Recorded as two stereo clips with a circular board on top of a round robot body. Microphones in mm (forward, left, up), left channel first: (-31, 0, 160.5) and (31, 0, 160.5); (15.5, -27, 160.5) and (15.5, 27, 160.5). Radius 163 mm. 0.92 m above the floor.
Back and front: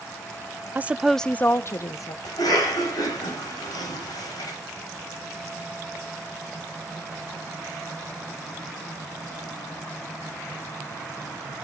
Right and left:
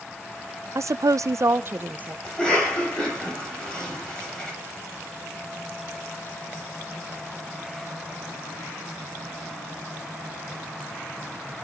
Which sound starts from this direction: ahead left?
A woman speaking, at 0.8 s.